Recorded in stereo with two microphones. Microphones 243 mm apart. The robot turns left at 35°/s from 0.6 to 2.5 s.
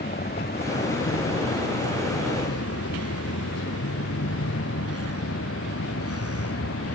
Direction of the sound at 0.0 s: 140° left.